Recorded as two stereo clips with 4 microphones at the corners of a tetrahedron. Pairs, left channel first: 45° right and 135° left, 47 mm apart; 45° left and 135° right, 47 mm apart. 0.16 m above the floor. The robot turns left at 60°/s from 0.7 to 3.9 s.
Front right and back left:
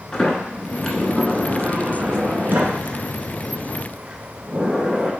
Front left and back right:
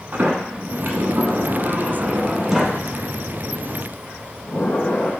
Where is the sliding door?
110° right, 0.7 m; by 5.1 s 60° left, 0.7 m.